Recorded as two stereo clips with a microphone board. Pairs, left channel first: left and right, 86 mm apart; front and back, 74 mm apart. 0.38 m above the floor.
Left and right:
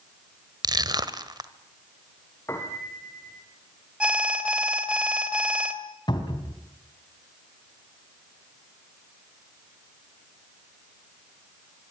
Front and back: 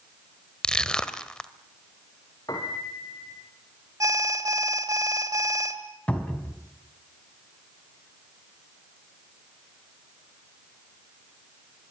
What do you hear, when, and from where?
0.6 s crushing: 75° right, 1.3 m
2.5 s a piano: 30° left, 4.5 m
4.0 s an alarm: 165° right, 2 m
6.1 s a cupboard door: 70° left, 3.5 m